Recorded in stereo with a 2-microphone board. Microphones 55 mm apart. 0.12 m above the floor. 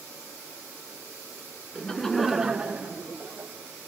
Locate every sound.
1.8 s laughter: 15° left (ahead or behind), 1.1 m; by 3.5 s 35° right (ahead or behind), 1.6 m